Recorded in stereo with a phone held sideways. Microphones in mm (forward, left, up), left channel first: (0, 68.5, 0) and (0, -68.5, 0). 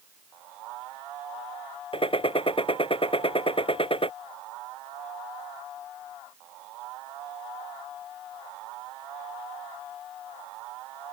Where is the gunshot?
40° left (ahead or behind).